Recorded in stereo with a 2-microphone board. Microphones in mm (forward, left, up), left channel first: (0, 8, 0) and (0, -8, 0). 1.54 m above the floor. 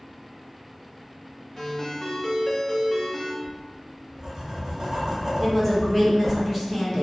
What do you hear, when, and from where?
1.6 s a ringtone: 20° left (ahead or behind), 0.8 m
3.4 s writing: 25° right (ahead or behind), 0.9 m
5.4 s a woman speaking: centre (ahead or behind), 1.5 m